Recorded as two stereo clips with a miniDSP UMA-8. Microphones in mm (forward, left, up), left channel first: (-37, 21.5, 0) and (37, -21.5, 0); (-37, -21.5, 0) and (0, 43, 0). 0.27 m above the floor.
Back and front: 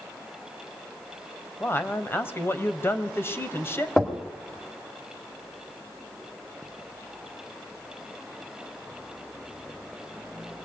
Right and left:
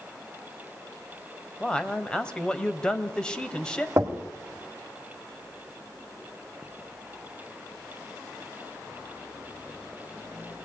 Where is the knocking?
75° left, 1.7 m.